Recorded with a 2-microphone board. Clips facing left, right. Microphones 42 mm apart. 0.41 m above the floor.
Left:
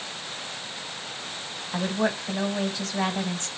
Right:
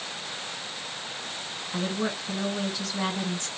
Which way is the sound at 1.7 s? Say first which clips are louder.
Left 4 dB; 35° left (ahead or behind).